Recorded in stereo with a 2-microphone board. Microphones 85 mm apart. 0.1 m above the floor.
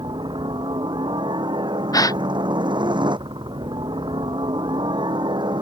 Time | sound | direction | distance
0.0 | a helicopter | 70° right (ahead or behind) | ?
1.9 | a gasp | 50° left (ahead or behind) | ?